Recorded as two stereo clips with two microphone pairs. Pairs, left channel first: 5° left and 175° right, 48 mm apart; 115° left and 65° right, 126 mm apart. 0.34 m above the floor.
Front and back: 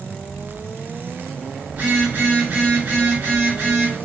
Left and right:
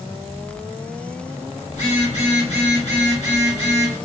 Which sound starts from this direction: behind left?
A phone buzzing, at 1.7 s.